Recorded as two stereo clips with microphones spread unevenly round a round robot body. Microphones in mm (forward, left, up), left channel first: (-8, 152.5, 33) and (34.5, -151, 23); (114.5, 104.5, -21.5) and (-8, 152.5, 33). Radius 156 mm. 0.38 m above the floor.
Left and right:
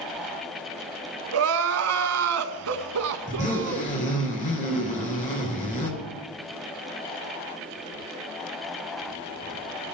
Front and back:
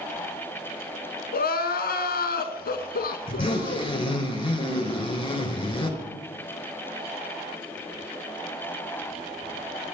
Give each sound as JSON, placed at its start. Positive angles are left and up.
{"t": 1.3, "sound": "crying", "azimuth_deg": -40, "distance_m": 0.9}
{"t": 3.3, "sound": "a zipper", "azimuth_deg": 30, "distance_m": 4.0}